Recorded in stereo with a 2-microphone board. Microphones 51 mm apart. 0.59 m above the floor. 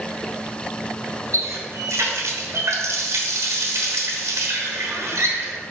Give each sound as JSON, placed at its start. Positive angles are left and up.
{"t": 1.3, "sound": "a running tap", "side_deg": -75, "distance_m": 1.2}